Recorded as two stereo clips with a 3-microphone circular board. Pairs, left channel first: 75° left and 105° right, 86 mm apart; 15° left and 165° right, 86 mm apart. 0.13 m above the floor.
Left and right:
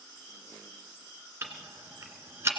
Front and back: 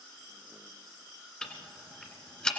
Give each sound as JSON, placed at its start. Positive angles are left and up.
{"t": 1.4, "sound": "ticking", "azimuth_deg": -60, "distance_m": 1.6}